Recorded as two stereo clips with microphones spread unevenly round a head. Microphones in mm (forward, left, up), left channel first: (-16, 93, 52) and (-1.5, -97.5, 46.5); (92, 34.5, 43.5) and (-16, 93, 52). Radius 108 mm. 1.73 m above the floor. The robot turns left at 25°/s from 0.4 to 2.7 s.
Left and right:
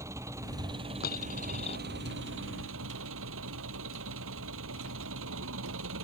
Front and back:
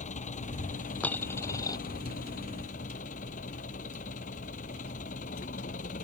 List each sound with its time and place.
0.0 s an engine running: 10° right; by 6.0 s 65° right
1.0 s a dropped coin: 50° left; by 1.8 s 30° left